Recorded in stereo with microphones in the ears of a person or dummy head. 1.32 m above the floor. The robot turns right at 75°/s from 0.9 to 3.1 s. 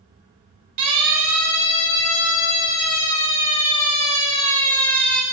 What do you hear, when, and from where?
0.8 s a siren: 40° right (ahead or behind), 8.5 m; by 5.2 s centre (ahead or behind), 4.5 m